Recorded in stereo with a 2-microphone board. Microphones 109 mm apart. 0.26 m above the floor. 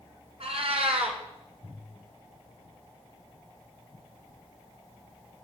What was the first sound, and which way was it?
A cat meowing, 70° right (ahead or behind).